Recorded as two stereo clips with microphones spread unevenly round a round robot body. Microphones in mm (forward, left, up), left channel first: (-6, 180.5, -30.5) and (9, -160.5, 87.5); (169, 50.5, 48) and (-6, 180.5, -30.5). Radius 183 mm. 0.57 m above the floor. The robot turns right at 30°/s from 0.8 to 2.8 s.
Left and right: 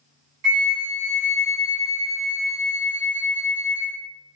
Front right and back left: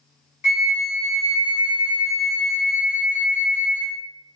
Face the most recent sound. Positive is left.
turn(degrees=25)